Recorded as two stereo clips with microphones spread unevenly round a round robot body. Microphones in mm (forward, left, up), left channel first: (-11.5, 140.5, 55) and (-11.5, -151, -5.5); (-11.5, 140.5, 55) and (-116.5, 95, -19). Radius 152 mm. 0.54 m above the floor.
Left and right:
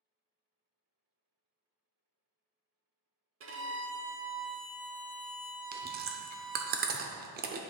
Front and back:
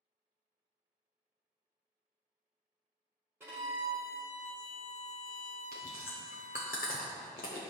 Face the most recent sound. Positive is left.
turn(degrees=-35)